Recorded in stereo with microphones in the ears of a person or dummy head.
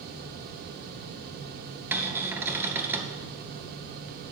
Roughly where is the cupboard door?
Centre.